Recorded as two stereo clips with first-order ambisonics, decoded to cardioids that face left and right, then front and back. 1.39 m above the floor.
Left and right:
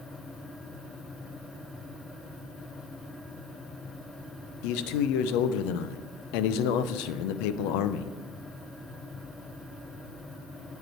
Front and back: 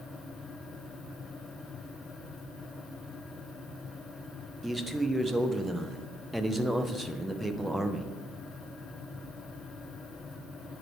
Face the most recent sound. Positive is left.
turn(degrees=95)